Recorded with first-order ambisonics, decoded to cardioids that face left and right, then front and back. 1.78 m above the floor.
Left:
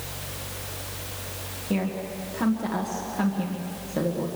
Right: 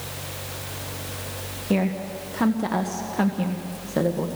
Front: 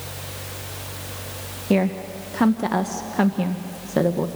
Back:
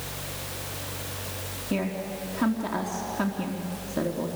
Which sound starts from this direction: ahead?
A woman speaking, at 1.7 s.